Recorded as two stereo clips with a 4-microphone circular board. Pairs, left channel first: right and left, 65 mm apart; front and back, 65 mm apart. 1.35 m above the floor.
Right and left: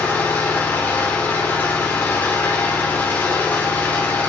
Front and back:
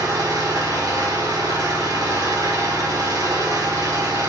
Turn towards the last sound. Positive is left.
turn(degrees=-150)